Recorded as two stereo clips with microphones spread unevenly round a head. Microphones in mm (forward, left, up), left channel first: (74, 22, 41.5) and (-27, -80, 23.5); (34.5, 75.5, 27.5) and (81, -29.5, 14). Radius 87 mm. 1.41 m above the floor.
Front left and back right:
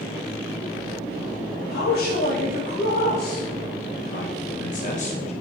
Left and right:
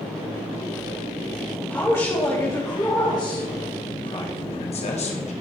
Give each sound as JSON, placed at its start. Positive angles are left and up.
{"t": 1.7, "sound": "a man speaking", "azimuth_deg": 45, "distance_m": 2.5}